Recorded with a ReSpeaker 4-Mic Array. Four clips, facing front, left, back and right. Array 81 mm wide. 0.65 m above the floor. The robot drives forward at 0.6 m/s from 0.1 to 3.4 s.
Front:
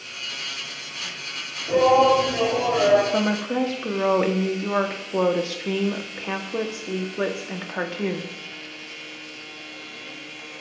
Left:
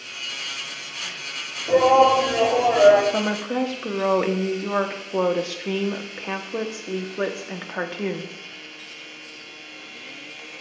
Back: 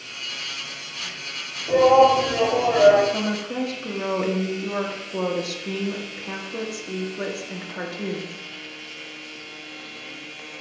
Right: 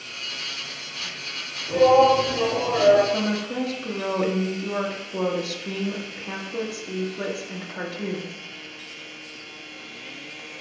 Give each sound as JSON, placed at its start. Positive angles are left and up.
{"t": 1.7, "sound": "a shout", "azimuth_deg": 100, "distance_m": 3.0}
{"t": 3.1, "sound": "a woman speaking", "azimuth_deg": 45, "distance_m": 1.1}